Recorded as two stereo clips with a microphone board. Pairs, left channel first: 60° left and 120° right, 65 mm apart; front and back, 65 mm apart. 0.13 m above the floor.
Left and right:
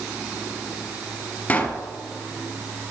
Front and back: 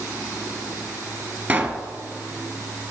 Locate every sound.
1.5 s a pop: 115° left, 1.0 m